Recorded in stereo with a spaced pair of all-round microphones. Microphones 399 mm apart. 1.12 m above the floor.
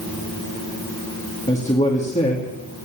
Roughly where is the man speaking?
Centre.